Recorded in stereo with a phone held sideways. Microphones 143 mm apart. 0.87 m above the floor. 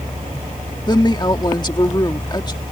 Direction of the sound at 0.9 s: 30° left (ahead or behind).